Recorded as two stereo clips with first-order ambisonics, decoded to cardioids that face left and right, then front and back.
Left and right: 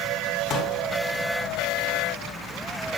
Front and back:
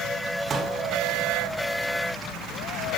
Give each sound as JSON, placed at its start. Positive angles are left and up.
{"t": 0.5, "sound": "a pop", "azimuth_deg": 125, "distance_m": 1.9}